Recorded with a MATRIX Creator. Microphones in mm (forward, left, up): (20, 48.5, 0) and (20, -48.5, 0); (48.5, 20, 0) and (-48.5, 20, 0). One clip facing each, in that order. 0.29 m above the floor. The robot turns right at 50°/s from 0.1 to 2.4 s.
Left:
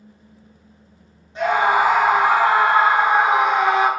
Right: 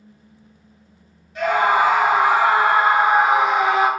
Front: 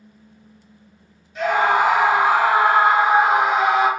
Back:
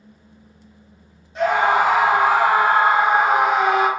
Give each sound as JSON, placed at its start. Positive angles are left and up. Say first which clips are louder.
{"t": 1.4, "sound": "a scream", "louder": "even, back 1 dB", "azimuth_deg": 145, "distance_m": 1.8}